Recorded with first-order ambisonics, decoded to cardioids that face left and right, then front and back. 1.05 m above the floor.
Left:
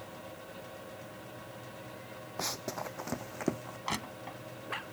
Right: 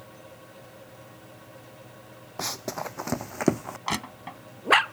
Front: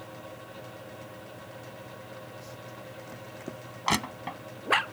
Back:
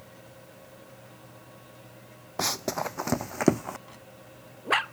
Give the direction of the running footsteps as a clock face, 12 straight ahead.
6 o'clock.